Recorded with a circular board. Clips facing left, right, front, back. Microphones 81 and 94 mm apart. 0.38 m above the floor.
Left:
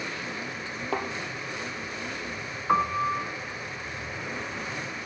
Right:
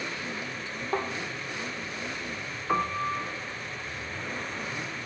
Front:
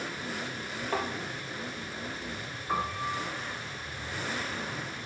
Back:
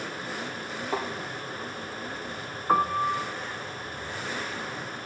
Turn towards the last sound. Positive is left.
turn(degrees=150)